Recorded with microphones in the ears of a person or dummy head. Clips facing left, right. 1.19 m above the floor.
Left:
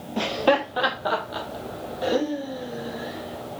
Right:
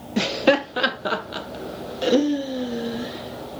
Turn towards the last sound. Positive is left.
turn(degrees=-30)  # may be behind; listen again after turning